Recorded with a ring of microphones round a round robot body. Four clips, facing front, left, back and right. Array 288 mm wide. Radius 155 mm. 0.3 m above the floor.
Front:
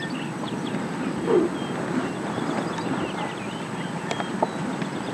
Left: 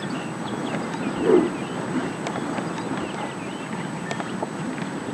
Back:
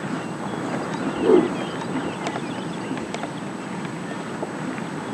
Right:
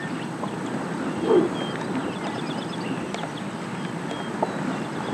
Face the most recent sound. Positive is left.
turn(degrees=145)